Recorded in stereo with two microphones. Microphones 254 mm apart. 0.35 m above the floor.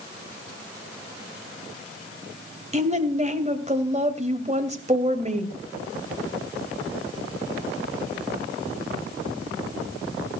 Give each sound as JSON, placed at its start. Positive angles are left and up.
{"t": 2.7, "sound": "a woman speaking", "side_deg": -25, "distance_m": 2.0}